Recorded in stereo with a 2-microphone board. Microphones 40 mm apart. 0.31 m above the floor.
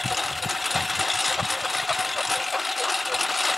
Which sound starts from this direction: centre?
A lawn mower, at 0.0 s.